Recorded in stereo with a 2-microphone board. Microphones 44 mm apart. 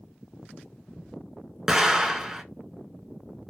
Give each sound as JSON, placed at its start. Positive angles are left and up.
{"t": 1.7, "sound": "an explosion", "side_deg": -15, "distance_m": 0.6}